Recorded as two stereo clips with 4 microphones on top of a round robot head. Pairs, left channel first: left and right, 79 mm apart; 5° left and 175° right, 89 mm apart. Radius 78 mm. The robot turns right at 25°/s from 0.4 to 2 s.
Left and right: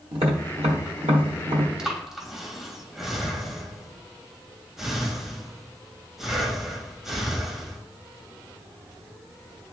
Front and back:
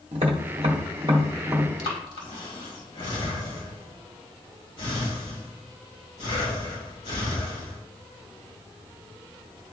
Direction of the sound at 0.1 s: 135° right.